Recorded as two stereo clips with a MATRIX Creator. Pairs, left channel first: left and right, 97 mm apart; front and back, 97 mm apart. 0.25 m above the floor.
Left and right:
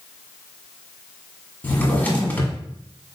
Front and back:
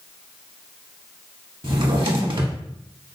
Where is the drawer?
160° left, 0.7 m.